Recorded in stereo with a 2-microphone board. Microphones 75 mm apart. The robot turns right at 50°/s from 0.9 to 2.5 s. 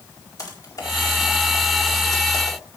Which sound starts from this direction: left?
Typing on a keyboard, at 0.4 s.